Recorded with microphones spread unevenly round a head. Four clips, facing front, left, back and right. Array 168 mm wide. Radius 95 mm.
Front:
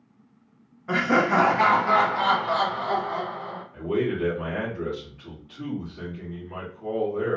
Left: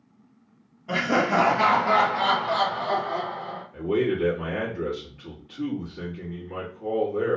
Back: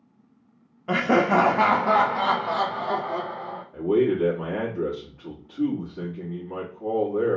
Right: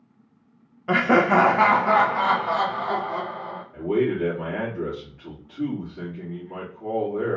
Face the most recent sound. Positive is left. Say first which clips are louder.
# right 1 dB, back 5 dB
turn(degrees=-165)